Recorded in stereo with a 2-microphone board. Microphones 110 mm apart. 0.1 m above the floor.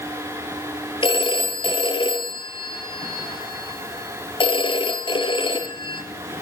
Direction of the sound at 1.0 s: 50° left (ahead or behind).